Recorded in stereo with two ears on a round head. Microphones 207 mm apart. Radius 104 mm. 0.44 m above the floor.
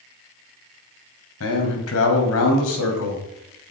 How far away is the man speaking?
About 2.5 m.